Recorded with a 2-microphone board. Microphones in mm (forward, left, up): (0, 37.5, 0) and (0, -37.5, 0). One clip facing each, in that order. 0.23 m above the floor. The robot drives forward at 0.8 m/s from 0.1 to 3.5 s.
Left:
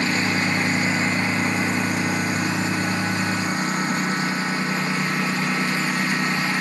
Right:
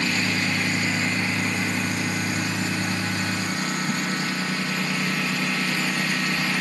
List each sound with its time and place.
0.0 s a lawn mower: 30° left (ahead or behind); by 6.6 s 25° left (ahead or behind)